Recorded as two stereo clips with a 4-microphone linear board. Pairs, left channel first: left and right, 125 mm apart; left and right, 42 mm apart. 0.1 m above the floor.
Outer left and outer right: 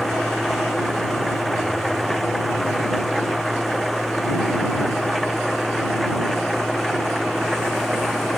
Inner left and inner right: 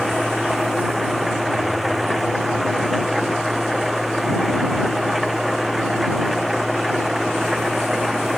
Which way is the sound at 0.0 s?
Centre (ahead or behind).